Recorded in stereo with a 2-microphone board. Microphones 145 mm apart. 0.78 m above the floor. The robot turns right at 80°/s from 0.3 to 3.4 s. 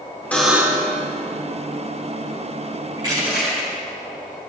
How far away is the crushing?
About 4.5 m.